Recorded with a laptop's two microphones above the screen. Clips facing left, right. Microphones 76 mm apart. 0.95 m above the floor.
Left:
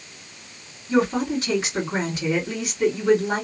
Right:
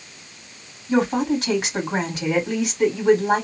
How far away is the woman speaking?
About 2.0 m.